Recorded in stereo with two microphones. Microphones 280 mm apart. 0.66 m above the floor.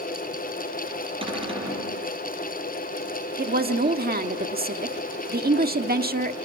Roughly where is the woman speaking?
Right.